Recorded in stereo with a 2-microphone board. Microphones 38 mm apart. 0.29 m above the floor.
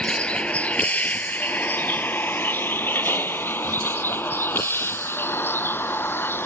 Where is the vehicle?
25° left (ahead or behind); by 6.5 s 85° left.